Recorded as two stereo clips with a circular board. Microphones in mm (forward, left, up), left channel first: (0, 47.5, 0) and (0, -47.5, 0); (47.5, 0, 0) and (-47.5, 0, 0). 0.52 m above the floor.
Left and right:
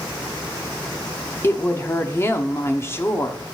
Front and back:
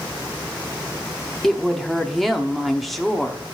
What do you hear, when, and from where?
1.4 s a woman speaking: 90° left, 1.0 m